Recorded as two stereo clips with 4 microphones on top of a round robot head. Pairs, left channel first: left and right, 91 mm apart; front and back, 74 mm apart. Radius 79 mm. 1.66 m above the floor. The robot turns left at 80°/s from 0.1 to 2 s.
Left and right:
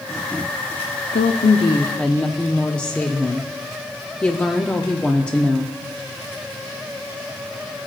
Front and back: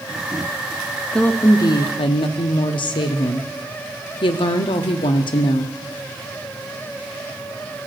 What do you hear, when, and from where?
1.1 s a woman speaking: 80° left, 0.6 m; by 5.7 s 10° left, 0.6 m